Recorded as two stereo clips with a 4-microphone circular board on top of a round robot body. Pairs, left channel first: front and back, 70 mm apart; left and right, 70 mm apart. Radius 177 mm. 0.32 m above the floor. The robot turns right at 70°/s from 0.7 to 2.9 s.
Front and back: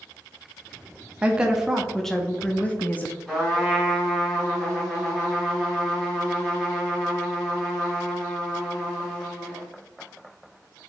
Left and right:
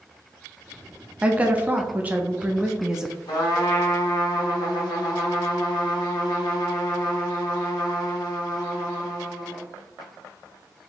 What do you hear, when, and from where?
1.2 s a woman speaking: 135° right, 0.8 m; by 3.1 s 15° right, 0.8 m
3.3 s a trumpet: 90° left, 1.6 m